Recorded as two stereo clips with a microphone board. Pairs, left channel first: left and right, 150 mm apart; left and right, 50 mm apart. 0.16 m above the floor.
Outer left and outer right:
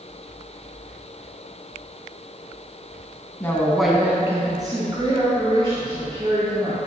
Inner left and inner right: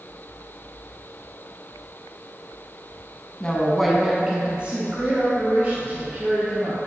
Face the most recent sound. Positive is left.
turn(degrees=-35)  # may be behind; listen again after turning